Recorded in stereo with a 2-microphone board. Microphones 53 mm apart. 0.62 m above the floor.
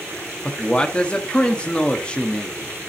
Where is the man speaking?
20° left (ahead or behind), 0.9 m.